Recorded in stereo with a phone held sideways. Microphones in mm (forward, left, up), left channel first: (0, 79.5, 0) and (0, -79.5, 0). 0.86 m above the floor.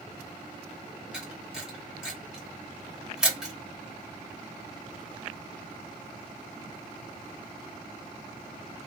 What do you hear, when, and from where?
1.1 s a camera shutter: 5° right (ahead or behind), 1.3 m